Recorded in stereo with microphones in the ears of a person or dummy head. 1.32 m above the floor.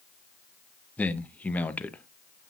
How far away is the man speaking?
About 0.7 m.